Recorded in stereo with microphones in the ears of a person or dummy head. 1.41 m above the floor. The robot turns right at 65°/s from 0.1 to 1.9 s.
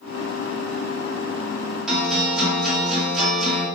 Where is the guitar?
Centre (ahead or behind), 0.9 m; by 3.7 s 5° left (ahead or behind), 0.9 m.